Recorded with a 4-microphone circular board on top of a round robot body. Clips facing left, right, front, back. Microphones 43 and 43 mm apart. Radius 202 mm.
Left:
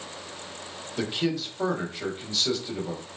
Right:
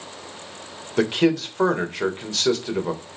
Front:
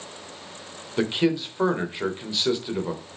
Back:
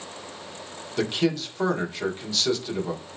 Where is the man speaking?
70° right, 3 m.